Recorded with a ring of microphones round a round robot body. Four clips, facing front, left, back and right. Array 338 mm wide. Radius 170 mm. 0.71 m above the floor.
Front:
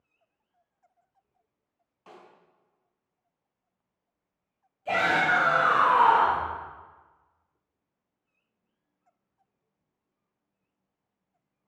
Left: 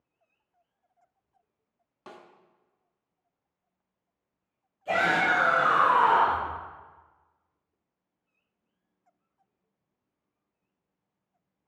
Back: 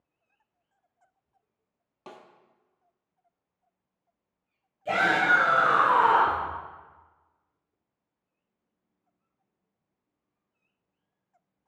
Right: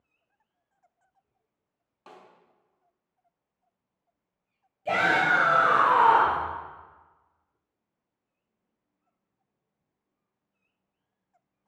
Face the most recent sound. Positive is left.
turn(degrees=-125)